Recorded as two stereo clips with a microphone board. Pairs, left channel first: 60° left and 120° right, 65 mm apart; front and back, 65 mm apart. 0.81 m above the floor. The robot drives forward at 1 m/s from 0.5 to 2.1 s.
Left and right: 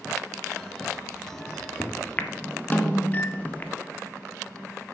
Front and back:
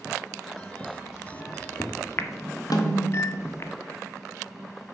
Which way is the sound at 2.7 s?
10° right.